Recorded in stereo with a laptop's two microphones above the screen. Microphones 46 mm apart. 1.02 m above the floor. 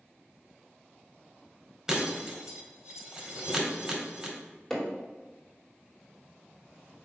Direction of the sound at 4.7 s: 10° left (ahead or behind).